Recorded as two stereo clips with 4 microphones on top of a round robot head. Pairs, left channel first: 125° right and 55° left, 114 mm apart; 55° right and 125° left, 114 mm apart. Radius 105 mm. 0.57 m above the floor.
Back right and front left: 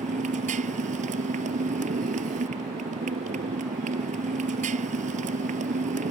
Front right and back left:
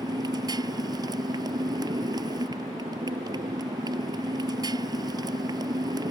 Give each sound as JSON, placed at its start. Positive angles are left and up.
{"t": 0.0, "sound": "a motorcycle", "azimuth_deg": 70}